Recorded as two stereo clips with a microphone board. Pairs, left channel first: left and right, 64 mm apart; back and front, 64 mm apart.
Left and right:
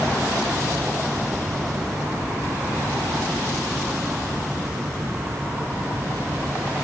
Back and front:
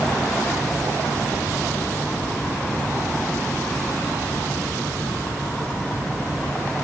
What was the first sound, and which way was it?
Only background noise.